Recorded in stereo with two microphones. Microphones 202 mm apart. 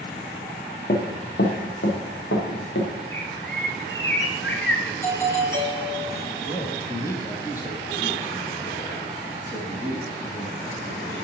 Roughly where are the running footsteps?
Left.